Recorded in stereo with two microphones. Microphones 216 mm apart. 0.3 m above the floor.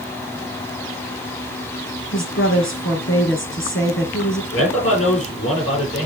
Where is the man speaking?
65° left (ahead or behind), 7.5 m.